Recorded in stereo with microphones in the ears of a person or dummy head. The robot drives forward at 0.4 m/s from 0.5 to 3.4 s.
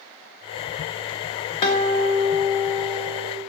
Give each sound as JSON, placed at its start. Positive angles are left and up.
{"t": 1.6, "sound": "a guitar", "side_deg": 20, "distance_m": 0.9}